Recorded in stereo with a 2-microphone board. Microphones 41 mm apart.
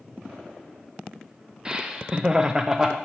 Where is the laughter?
20° right (ahead or behind), 0.7 m; by 3.0 s 10° right (ahead or behind), 0.5 m.